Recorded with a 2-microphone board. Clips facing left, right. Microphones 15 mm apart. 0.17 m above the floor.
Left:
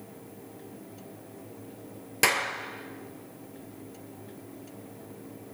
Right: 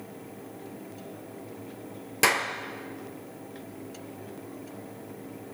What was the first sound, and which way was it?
A clap, centre (ahead or behind).